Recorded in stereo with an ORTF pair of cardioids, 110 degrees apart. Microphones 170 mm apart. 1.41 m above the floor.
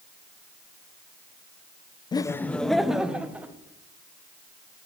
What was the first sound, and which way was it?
Laughter, 25° left.